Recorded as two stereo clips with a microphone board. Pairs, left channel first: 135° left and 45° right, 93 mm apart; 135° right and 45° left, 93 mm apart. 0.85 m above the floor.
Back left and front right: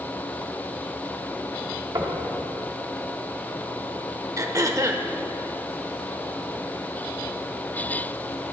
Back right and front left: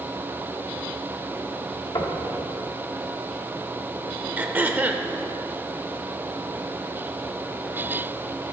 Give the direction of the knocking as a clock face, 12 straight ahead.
3 o'clock.